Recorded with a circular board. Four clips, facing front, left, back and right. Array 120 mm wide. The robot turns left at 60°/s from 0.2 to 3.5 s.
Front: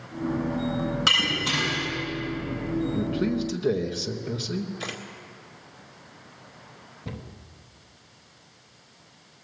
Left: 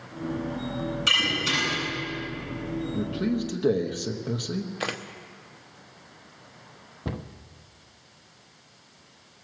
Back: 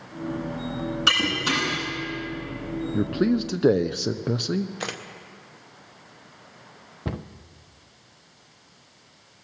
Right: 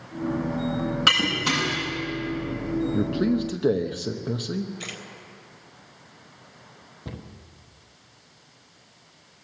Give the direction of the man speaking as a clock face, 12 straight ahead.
5 o'clock.